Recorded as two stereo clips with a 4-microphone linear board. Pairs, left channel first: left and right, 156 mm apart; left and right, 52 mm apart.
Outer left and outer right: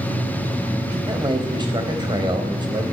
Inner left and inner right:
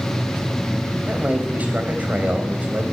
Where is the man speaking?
30° right (ahead or behind), 3 m.